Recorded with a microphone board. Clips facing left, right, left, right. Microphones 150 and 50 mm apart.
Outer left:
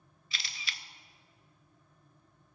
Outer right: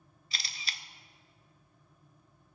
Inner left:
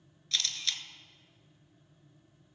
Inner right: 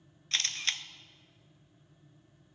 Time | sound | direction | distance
0.3 | a camera shutter | 35° right (ahead or behind) | 0.6 m